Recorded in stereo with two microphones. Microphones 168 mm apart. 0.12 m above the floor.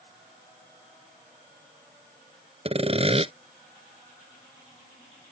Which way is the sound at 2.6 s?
35° right (ahead or behind).